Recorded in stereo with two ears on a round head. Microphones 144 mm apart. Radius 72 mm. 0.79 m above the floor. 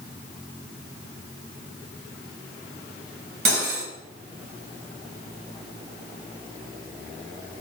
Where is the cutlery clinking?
70° right (ahead or behind), 3 m.